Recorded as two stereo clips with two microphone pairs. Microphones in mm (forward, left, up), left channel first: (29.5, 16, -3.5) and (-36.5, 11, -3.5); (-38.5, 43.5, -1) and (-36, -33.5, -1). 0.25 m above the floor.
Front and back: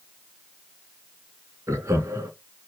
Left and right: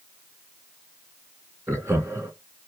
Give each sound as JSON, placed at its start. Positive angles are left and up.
{"t": 1.7, "sound": "laughter", "azimuth_deg": -140, "distance_m": 2.5}